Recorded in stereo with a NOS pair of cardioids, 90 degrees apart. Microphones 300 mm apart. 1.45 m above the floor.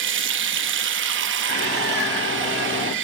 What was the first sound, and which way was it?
Running water, 40° right.